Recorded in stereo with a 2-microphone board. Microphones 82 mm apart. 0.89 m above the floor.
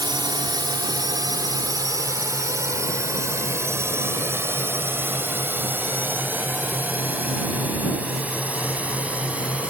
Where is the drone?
60° right (ahead or behind); by 9.7 s 15° right (ahead or behind).